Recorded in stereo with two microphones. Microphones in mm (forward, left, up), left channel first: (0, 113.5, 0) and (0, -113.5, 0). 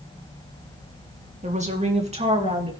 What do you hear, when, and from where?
1.4 s a woman speaking: 30° right (ahead or behind), 1.7 m; by 2.7 s 25° right (ahead or behind), 3 m